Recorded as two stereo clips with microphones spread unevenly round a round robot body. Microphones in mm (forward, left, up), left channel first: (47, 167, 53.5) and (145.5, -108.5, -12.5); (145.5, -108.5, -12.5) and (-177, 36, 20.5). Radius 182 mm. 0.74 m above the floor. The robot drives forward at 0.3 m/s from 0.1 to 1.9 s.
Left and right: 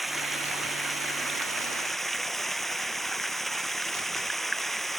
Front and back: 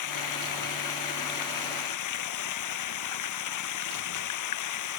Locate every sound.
0.0 s running water: 20° left